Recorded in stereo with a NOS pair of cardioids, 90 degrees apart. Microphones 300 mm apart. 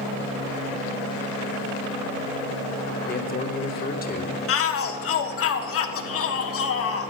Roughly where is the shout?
Ahead left.